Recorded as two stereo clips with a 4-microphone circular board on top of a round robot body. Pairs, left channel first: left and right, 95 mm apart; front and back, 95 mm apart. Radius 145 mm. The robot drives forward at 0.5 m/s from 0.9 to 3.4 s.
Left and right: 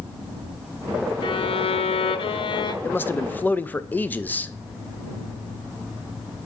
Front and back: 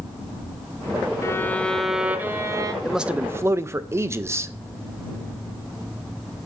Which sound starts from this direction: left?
A man speaking, at 2.8 s.